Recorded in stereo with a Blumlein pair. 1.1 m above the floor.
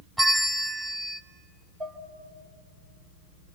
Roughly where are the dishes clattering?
Ahead.